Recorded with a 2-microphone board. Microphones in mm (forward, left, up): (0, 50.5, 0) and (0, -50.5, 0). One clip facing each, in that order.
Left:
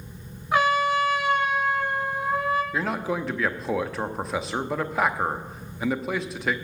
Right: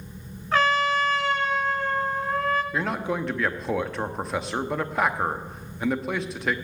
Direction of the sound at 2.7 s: Centre (ahead or behind).